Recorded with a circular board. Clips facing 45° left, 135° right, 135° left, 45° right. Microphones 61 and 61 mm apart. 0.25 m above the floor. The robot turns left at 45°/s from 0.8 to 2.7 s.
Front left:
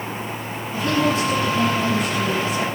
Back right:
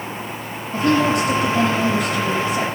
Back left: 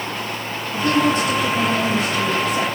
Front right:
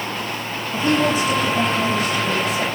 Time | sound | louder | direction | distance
0.7 | a woman speaking | back right 3 dB, back left 1 dB | 110° right | 6 m